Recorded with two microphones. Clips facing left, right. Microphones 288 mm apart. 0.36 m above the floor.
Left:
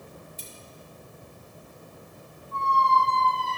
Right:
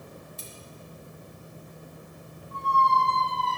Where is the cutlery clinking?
75° right (ahead or behind), 2 m.